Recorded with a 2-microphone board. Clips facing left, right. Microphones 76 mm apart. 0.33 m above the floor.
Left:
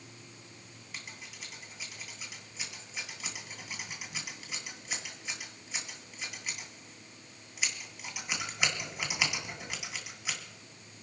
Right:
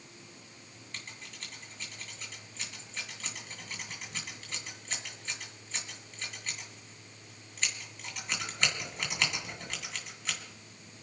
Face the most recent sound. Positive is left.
turn(degrees=10)  # may be behind; listen again after turning